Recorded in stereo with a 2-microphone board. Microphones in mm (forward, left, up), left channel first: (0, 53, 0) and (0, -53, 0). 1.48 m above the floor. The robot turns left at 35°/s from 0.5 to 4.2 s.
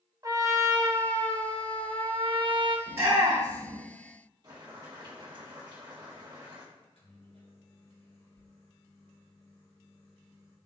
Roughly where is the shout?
Centre.